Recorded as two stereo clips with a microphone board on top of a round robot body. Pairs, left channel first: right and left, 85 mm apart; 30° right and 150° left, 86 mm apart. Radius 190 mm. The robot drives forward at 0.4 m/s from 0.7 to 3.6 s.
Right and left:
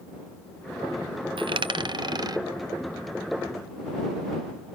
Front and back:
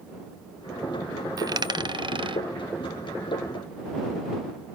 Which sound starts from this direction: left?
A dropped coin, at 1.4 s.